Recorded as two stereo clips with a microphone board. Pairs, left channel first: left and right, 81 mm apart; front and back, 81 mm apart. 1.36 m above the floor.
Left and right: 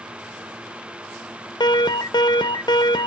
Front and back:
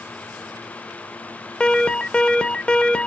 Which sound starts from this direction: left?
An alarm, at 1.6 s.